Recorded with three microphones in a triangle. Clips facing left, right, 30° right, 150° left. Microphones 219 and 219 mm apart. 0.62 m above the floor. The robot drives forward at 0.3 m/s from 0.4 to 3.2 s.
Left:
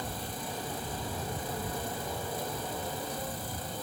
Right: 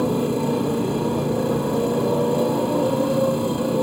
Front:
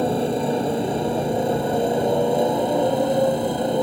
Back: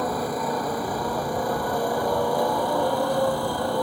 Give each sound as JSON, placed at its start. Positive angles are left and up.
{"t": 0.0, "sound": "a motorcycle", "azimuth_deg": -95}